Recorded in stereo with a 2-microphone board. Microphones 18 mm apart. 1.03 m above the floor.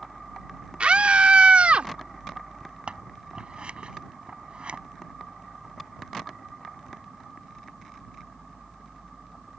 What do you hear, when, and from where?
0.8 s a scream: 75° right (ahead or behind); by 1.9 s 85° right
2.9 s scissors: 65° right (ahead or behind)